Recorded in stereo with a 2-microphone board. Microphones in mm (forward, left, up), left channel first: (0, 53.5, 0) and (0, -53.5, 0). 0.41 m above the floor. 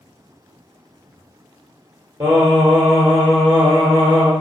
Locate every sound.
2.2 s singing: 35° right (ahead or behind), 1.0 m